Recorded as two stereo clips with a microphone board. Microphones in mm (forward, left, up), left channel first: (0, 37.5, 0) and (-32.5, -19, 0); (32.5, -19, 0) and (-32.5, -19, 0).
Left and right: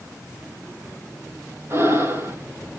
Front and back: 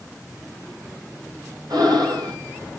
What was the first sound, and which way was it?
Breathing, 165° right.